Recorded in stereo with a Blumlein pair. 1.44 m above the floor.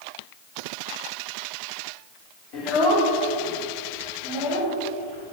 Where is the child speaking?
40° left, 3.5 m; by 5.3 s 65° left, 6 m.